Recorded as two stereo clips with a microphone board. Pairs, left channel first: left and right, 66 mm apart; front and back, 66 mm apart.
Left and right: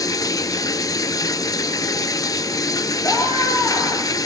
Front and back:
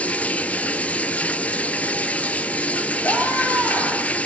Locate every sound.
0.0 s running water: 70° left, 0.9 m
3.0 s a scream: 55° left, 9 m